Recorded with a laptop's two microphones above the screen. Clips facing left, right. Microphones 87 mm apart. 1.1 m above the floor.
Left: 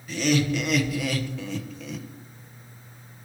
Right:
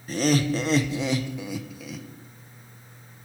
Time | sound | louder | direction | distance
0.1 | laughter | right 1 dB | 40° right (ahead or behind) | 1.0 m